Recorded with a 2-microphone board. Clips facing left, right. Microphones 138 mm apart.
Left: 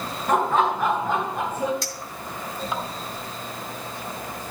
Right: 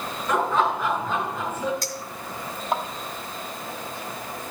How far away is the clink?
About 2 m.